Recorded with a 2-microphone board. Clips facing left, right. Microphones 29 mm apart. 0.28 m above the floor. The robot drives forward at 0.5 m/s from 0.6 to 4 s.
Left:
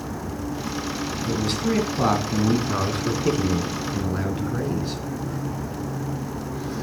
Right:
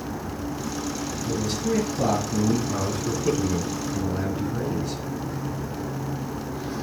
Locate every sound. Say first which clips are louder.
1.2 s a man speaking: left 2 dB; 65° left (ahead or behind), 2.5 m; by 5.0 s 45° left (ahead or behind), 3 m